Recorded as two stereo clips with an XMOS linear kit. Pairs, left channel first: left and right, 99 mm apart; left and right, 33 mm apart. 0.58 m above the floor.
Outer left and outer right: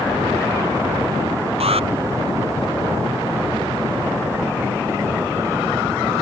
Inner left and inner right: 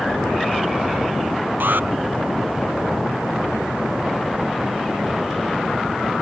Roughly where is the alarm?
Right.